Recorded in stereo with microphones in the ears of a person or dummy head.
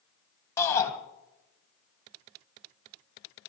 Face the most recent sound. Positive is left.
turn(degrees=15)  # may be behind; listen again after turning